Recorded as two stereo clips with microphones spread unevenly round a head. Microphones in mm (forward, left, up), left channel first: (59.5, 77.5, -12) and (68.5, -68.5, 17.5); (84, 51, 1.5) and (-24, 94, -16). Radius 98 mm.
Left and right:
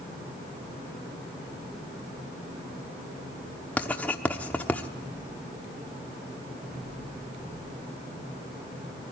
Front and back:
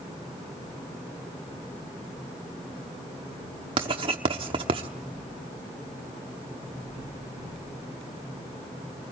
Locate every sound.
3.8 s writing: 175° right, 1.0 m